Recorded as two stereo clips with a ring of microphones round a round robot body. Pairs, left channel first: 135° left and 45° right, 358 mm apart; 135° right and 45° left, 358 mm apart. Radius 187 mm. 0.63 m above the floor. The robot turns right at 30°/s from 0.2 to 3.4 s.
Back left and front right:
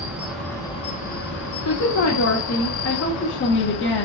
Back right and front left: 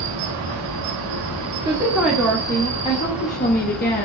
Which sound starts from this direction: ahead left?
An insect, at 0.0 s.